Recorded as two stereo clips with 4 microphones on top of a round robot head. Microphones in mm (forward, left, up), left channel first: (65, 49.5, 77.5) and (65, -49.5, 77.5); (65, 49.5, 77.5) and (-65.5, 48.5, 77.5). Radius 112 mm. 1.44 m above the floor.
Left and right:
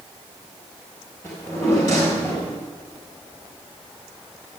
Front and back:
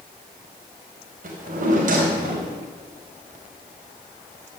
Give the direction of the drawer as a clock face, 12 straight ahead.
7 o'clock.